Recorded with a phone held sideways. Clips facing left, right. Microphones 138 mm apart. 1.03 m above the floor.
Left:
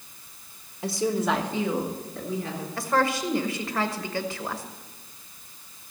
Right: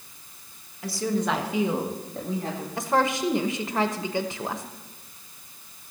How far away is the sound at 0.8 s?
About 1.5 m.